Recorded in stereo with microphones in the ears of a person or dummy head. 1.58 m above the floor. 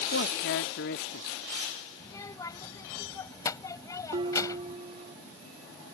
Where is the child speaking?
20° left (ahead or behind).